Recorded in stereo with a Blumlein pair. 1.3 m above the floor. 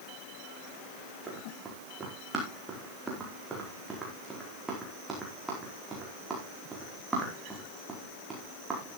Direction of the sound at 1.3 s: 15° right.